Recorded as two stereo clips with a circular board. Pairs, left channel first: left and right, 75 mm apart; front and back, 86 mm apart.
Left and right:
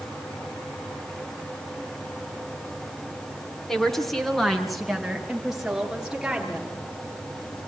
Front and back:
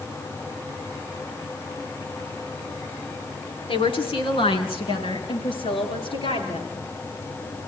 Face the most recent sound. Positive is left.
turn(degrees=-5)